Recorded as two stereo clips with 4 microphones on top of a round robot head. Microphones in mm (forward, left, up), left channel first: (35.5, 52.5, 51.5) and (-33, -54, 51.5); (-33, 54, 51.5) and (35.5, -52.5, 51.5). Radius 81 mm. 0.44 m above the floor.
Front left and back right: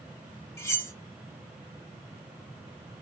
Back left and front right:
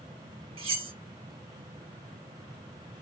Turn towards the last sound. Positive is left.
turn(degrees=-10)